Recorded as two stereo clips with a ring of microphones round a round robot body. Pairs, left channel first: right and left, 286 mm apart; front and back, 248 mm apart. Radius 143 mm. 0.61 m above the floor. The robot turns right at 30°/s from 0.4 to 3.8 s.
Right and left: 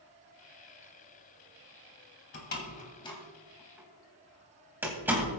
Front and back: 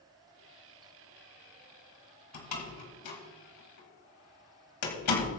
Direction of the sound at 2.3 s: 35° right.